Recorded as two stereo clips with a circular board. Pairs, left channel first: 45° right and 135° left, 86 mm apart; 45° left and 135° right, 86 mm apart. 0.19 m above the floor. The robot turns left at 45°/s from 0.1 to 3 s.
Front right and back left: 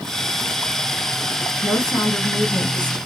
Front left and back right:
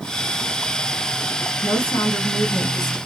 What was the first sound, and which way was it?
A woman speaking, 35° left.